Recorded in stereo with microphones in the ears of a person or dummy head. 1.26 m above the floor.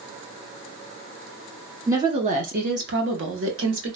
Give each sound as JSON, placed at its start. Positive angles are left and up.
{"t": 1.9, "sound": "a woman speaking", "side_deg": -10, "distance_m": 0.5}